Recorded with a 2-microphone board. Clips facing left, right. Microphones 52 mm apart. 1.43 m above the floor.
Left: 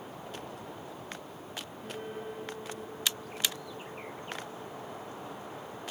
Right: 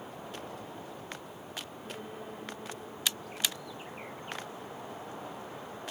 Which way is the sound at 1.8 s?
65° left (ahead or behind).